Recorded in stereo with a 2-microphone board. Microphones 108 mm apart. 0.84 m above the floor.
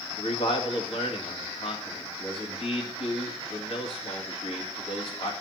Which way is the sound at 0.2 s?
60° left (ahead or behind).